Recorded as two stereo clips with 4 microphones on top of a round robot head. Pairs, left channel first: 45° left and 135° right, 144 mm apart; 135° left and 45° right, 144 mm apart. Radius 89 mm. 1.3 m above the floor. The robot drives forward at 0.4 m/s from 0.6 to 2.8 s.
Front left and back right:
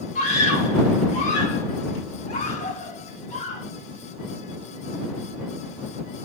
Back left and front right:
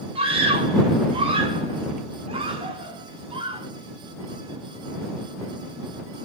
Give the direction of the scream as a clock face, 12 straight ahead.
12 o'clock.